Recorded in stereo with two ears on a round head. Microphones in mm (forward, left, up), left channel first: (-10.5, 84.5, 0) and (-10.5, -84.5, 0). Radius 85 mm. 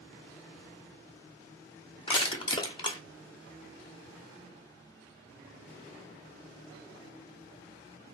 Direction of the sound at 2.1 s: 25° left (ahead or behind).